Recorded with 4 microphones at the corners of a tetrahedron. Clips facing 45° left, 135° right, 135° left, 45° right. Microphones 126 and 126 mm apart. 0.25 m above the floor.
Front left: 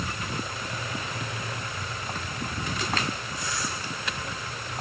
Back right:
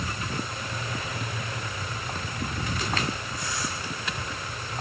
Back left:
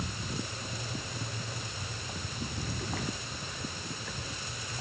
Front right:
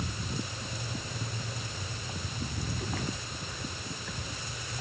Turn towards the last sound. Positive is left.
No sound to turn to.